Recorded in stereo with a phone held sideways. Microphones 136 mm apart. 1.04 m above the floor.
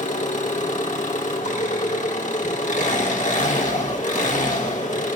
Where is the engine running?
65° left (ahead or behind), 3 m.